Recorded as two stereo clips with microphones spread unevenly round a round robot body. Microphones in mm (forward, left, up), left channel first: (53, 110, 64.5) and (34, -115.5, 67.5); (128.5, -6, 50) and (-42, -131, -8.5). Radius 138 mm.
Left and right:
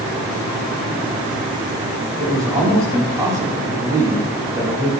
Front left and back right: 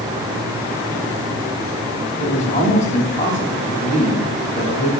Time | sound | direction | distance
2.2 | a man speaking | 20° right | 5.5 m